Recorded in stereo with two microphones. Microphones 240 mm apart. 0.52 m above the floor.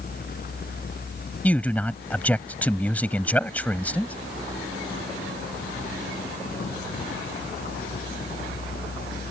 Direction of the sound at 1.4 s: 5° left (ahead or behind).